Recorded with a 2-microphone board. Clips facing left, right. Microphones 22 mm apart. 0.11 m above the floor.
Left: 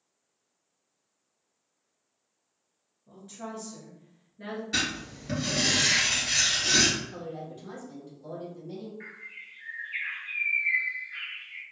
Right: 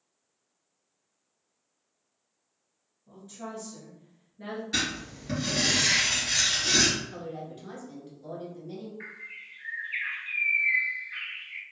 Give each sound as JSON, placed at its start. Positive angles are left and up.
{"t": 3.1, "sound": "a woman speaking", "side_deg": 25, "distance_m": 1.3}
{"t": 4.7, "sound": "writing", "side_deg": 0, "distance_m": 1.8}
{"t": 7.0, "sound": "a woman speaking", "side_deg": -25, "distance_m": 1.2}
{"t": 9.0, "sound": "a bird", "side_deg": -30, "distance_m": 0.6}